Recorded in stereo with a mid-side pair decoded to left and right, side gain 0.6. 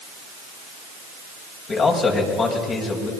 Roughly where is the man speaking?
Ahead left.